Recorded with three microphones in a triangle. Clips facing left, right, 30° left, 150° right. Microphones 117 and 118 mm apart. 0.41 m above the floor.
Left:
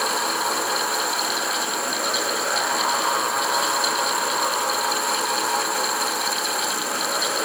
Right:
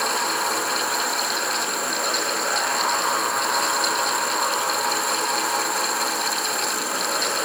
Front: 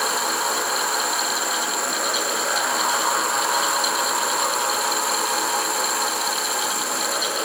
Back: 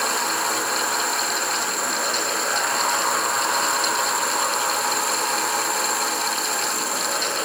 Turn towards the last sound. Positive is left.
No sound to turn to.